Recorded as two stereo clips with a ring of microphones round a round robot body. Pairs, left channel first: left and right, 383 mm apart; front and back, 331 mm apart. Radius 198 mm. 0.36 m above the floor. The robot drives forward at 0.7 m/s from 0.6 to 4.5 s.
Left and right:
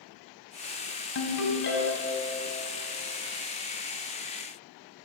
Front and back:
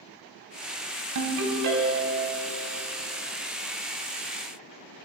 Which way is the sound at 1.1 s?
145° left.